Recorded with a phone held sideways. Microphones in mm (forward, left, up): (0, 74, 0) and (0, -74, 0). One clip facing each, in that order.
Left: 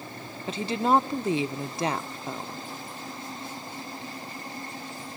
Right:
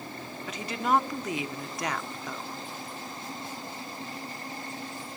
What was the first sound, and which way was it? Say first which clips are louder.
A woman speaking: left 4 dB; 30° left (ahead or behind).